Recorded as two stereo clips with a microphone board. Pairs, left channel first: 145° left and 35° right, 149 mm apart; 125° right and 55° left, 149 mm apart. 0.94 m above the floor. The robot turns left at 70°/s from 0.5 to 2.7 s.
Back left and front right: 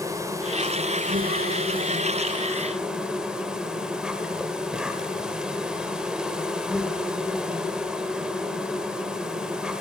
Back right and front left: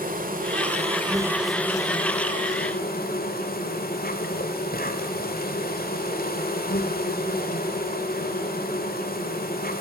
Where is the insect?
35° left, 1.7 m; by 9.8 s 120° right, 1.7 m.